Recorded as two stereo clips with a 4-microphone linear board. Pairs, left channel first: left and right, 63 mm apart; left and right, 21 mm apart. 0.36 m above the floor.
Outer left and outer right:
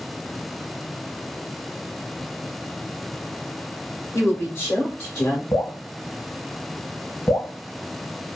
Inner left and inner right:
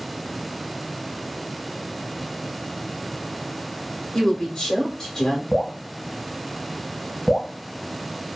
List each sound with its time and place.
4.1 s a woman speaking: 30° left (ahead or behind), 1.2 m
5.5 s dripping: 65° left (ahead or behind), 0.7 m